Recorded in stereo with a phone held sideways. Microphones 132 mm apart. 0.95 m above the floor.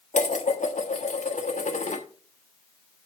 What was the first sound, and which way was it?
Dishes clattering, 70° left (ahead or behind).